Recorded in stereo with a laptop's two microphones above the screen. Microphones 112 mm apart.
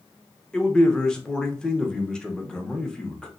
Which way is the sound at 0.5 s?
10° left (ahead or behind).